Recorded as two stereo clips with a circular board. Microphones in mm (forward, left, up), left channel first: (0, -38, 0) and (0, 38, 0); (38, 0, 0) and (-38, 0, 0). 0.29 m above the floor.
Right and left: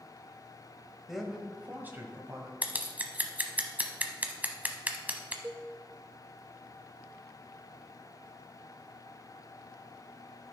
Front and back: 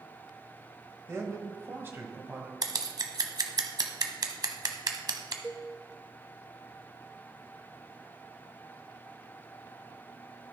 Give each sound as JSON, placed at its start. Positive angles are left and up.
{"t": 1.1, "sound": "a man speaking", "azimuth_deg": 180, "distance_m": 1.3}
{"t": 2.6, "sound": "scissors", "azimuth_deg": 155, "distance_m": 0.9}
{"t": 5.4, "sound": "a cowbell", "azimuth_deg": 55, "distance_m": 0.5}